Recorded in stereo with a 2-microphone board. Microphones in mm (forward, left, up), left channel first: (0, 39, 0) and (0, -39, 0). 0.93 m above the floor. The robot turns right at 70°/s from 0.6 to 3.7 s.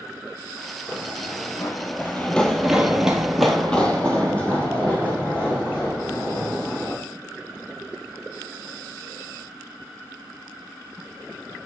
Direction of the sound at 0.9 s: 10° left (ahead or behind).